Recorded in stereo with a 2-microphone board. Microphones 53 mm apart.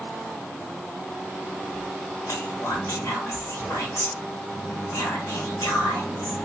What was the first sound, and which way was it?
Whispering, 70° left (ahead or behind).